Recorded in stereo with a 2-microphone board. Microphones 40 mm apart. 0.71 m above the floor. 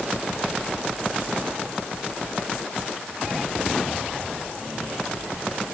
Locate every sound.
Only background noise.